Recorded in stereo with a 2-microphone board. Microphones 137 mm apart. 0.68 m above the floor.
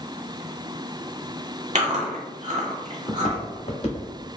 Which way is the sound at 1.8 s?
60° right (ahead or behind).